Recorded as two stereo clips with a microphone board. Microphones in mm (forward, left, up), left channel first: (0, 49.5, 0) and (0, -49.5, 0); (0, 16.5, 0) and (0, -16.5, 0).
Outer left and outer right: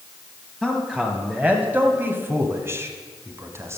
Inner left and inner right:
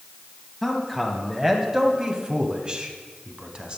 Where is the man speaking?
10° right (ahead or behind), 1.3 m; by 3.8 s 30° right (ahead or behind), 1.6 m.